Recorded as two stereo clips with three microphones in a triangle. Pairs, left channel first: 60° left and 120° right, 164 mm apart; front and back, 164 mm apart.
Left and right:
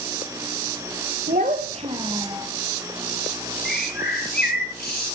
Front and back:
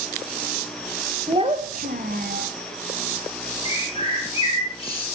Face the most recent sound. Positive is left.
turn(degrees=55)